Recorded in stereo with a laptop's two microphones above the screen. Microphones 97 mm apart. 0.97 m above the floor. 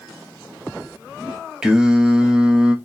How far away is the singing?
About 0.7 m.